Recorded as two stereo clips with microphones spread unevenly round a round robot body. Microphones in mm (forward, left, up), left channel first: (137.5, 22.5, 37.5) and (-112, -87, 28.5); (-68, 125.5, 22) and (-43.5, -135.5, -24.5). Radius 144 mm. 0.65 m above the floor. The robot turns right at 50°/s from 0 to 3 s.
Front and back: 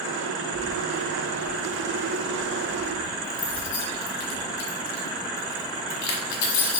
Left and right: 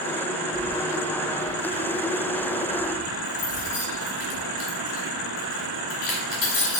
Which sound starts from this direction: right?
Keys jangling, at 0.5 s.